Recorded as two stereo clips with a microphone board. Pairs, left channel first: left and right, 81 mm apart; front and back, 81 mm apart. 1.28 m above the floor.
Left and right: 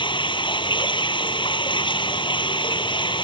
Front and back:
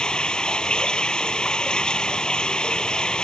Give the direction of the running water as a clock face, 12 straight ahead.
9 o'clock.